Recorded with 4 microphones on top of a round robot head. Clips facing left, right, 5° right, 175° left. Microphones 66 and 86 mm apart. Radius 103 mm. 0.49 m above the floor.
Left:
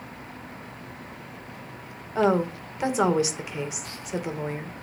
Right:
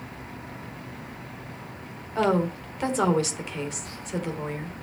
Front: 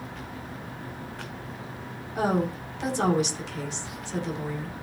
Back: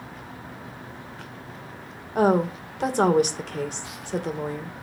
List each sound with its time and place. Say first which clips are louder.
2.1 s a woman speaking: left 1 dB, back 5 dB; 165° left, 2.5 m